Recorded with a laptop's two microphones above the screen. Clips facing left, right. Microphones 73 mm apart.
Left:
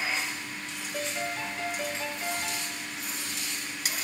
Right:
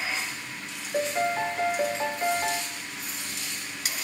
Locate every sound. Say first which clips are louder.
0.9 s a piano: right 8 dB; 35° right (ahead or behind), 0.7 m